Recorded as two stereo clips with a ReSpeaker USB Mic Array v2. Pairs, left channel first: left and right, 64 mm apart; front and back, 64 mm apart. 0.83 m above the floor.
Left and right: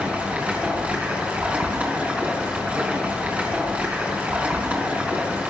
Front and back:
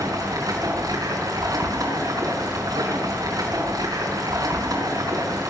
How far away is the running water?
About 6 m.